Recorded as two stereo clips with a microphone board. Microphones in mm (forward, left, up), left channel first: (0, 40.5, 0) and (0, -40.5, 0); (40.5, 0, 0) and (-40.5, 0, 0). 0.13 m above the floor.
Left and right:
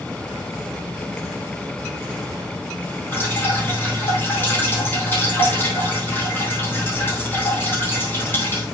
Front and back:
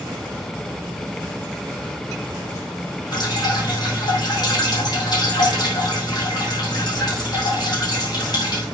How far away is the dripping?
About 4 m.